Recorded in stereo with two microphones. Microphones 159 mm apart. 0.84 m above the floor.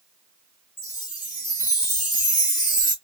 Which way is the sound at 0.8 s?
60° left (ahead or behind).